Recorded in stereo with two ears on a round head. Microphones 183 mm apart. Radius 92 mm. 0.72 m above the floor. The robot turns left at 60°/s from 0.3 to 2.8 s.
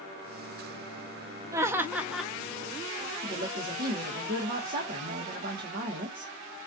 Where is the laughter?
15° right (ahead or behind), 0.6 m; by 2.3 s centre (ahead or behind), 0.6 m.